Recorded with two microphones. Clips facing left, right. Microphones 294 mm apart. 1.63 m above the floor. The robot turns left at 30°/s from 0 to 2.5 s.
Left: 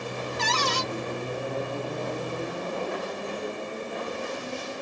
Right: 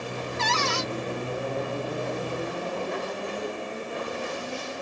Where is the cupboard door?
40° left (ahead or behind), 0.5 m.